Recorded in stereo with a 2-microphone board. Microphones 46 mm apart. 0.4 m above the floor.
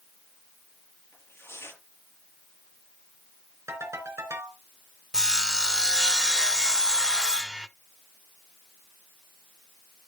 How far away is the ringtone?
About 3.5 m.